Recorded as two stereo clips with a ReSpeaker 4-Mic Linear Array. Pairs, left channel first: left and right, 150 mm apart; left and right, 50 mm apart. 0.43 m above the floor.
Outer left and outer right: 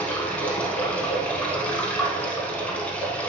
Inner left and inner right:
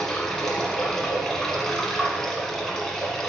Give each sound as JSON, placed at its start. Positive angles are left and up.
{"t": 0.0, "sound": "running water", "side_deg": 10, "distance_m": 1.2}